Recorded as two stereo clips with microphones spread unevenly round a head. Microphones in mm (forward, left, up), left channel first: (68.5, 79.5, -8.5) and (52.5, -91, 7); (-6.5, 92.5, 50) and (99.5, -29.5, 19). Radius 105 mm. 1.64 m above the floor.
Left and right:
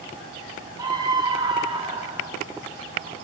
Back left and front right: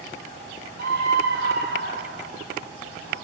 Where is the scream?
30° right, 6.5 m; by 2.3 s 35° right, 6.5 m.